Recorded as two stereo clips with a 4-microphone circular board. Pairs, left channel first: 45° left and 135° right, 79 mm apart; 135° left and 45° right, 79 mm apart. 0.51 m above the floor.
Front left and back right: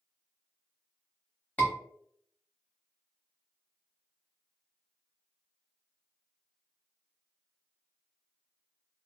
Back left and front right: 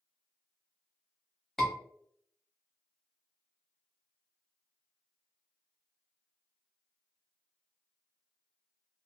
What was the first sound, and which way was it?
A scream, 60° left.